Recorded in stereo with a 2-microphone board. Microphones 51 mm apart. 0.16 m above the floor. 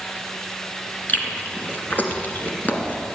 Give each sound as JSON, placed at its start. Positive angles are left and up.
{"t": 1.1, "sound": "chewing", "side_deg": 40, "distance_m": 2.5}